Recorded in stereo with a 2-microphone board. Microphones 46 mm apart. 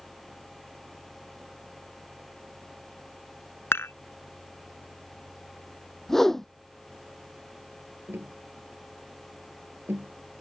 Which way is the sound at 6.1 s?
10° left (ahead or behind).